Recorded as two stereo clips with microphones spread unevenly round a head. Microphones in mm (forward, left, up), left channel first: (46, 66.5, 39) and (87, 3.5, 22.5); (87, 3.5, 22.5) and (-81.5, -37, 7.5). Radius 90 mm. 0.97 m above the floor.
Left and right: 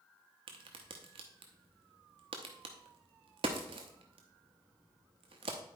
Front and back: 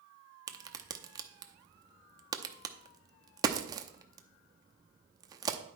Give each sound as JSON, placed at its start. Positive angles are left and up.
{"t": 0.5, "sound": "a crack", "azimuth_deg": -95, "distance_m": 0.7}